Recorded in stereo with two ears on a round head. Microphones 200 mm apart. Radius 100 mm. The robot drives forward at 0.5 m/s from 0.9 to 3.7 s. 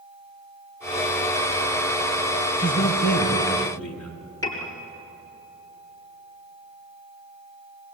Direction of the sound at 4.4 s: 15° left (ahead or behind).